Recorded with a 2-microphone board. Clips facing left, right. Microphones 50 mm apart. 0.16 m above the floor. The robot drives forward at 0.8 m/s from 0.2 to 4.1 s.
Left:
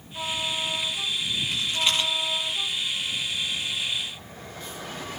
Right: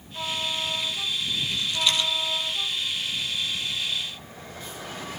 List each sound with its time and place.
1.5 s a rattle: 30° left (ahead or behind), 5 m